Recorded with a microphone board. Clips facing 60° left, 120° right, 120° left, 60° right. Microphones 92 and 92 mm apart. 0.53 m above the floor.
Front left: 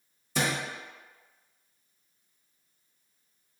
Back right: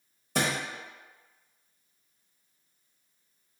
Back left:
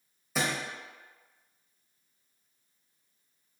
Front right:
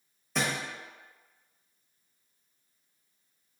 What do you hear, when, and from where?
0.3 s a thud: 155° right, 1.0 m